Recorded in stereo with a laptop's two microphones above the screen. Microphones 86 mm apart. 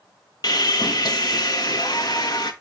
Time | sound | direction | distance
0.4 | sawing | 50° left (ahead or behind) | 1.5 m